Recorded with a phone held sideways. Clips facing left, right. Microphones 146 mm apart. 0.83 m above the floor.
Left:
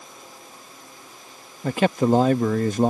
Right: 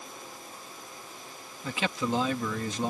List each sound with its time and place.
1.6 s a man speaking: 55° left (ahead or behind)